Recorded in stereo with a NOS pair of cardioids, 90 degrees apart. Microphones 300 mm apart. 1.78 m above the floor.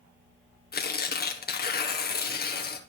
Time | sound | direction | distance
0.7 | tearing paper | 30° left | 1.5 m